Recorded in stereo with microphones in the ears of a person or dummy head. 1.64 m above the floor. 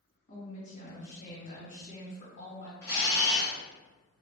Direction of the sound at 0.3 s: 40° left (ahead or behind).